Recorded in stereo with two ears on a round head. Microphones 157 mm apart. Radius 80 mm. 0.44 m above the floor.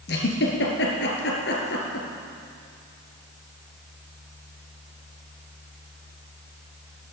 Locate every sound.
0.1 s a giggle: 65° left (ahead or behind), 2.5 m